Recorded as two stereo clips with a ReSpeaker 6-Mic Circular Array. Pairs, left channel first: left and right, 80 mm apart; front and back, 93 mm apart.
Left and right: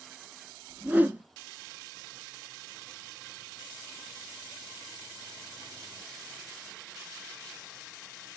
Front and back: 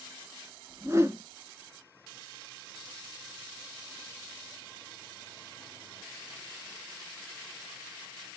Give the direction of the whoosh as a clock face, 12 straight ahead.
5 o'clock.